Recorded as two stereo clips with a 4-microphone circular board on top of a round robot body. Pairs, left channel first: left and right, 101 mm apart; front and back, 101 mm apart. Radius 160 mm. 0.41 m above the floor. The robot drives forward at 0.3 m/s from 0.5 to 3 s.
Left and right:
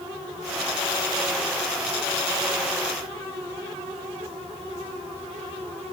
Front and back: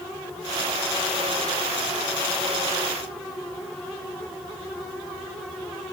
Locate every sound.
Only background noise.